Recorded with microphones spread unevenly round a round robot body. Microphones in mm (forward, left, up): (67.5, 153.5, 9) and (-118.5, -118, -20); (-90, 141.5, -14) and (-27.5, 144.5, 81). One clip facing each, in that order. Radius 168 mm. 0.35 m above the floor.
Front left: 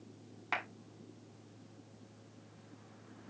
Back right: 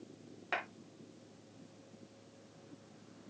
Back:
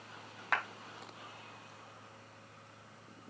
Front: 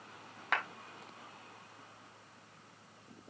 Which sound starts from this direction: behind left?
A clap, at 0.5 s.